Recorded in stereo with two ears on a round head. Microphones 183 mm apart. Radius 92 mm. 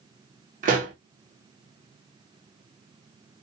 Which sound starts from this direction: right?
A pop, at 0.6 s.